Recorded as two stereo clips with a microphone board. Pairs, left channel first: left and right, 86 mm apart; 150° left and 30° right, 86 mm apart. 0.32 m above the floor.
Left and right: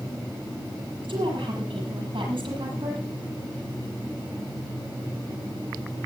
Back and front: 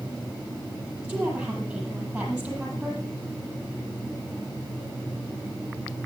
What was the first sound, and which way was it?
A woman speaking, 110° right.